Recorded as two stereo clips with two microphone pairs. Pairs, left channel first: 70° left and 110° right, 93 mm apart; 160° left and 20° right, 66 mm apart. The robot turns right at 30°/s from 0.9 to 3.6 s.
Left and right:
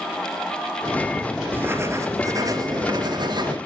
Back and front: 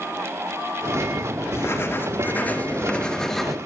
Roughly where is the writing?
Behind.